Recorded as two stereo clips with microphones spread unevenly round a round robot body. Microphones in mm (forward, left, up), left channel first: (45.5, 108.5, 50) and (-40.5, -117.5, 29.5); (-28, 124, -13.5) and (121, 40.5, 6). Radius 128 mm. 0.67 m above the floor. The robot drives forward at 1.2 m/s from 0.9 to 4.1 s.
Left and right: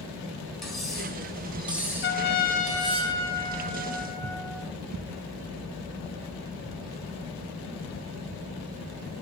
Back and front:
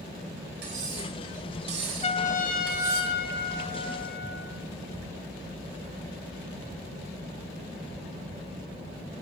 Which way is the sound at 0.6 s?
20° right.